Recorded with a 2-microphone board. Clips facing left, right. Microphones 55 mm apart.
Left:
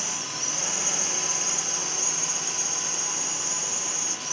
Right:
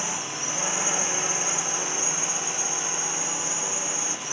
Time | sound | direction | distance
0.0 | a drone | 25° right (ahead or behind) | ?